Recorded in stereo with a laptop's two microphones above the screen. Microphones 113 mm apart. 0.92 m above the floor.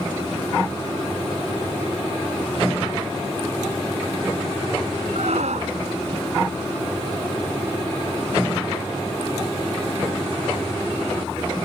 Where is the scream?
80° right.